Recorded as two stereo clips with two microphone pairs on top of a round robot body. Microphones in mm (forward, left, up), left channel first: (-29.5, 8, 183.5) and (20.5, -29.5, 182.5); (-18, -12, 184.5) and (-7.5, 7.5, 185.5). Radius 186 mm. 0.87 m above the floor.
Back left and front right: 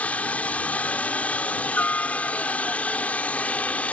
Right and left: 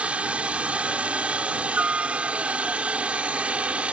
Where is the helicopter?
75° left.